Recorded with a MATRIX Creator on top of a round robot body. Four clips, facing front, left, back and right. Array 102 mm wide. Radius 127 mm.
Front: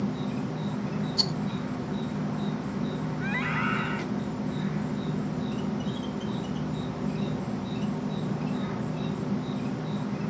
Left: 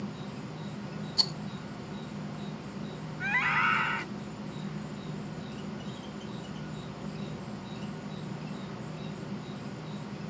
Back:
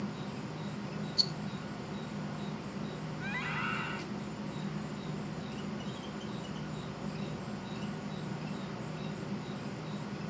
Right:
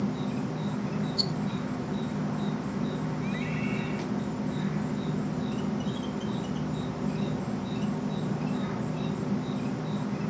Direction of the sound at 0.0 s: 45° right.